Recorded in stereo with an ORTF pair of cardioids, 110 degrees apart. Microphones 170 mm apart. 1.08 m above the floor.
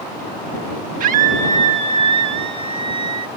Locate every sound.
1.0 s a scream: 55° right; by 3.3 s 30° right